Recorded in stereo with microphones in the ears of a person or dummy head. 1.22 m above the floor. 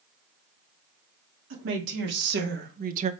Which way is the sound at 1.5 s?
75° right (ahead or behind).